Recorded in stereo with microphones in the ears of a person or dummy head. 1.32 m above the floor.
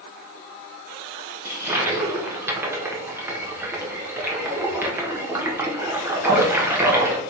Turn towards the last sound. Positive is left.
turn(degrees=-20)  # may be behind; listen again after turning